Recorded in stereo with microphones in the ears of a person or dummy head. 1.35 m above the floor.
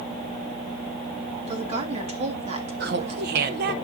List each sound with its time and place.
1.5 s a woman speaking: 35° right (ahead or behind), 2 m
2.8 s laughter: 55° right (ahead or behind), 1.2 m